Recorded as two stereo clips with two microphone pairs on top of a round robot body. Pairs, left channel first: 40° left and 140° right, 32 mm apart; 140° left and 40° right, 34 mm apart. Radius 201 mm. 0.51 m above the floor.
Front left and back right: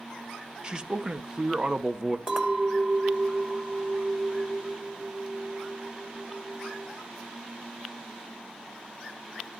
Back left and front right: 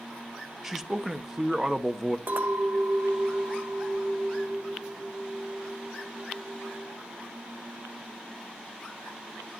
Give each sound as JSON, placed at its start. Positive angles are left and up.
{"t": 0.6, "sound": "a man speaking", "azimuth_deg": -135, "distance_m": 1.1}
{"t": 2.3, "sound": "a clink", "azimuth_deg": -75, "distance_m": 2.0}